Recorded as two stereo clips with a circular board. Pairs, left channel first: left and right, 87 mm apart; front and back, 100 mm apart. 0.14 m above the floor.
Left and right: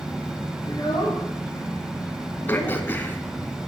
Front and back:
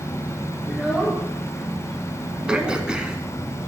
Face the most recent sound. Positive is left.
turn(degrees=110)